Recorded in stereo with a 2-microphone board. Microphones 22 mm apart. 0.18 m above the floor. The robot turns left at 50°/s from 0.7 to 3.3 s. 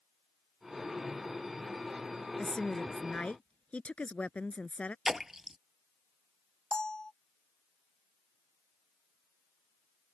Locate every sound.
2.4 s a woman speaking: 145° left; by 5.0 s 100° left
5.0 s a splash: 10° right (ahead or behind)
6.7 s a bell: 35° left (ahead or behind)